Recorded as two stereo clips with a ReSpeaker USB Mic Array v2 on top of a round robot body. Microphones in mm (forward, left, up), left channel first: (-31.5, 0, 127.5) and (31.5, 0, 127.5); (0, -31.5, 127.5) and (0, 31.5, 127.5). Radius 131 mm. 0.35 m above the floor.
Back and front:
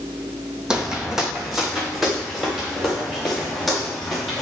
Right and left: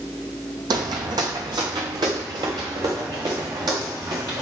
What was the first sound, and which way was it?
Footsteps, 80° left.